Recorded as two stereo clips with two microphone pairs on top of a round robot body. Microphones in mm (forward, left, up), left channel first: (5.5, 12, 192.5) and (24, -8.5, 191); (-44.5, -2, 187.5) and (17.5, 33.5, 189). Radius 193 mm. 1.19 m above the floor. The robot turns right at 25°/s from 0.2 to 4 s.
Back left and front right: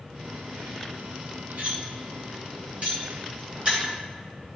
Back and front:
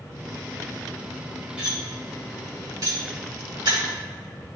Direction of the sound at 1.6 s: 50° right.